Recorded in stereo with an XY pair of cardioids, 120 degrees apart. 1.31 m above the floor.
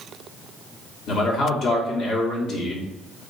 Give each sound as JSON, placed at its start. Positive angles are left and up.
{"t": 1.1, "sound": "a man speaking", "azimuth_deg": 65, "distance_m": 1.2}